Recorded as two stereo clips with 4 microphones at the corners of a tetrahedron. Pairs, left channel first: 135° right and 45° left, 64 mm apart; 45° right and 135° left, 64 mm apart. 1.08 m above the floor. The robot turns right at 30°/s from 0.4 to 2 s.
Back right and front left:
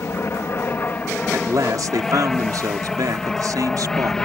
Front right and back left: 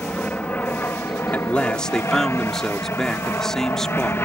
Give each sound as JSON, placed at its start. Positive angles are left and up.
{"t": 0.0, "sound": "an aircraft", "azimuth_deg": -100}
{"t": 1.3, "sound": "a man speaking", "azimuth_deg": 15}